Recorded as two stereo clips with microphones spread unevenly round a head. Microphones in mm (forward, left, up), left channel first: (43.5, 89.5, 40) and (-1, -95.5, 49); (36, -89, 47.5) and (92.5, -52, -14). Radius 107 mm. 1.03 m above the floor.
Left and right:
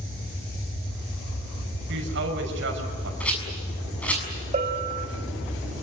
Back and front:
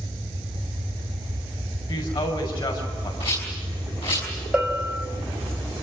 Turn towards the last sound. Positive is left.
turn(degrees=-50)